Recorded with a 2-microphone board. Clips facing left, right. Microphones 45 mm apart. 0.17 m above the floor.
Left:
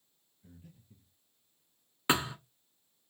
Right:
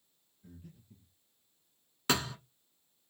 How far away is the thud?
About 0.6 m.